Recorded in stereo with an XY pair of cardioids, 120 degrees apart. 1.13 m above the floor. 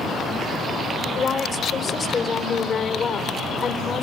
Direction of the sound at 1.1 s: 30° left.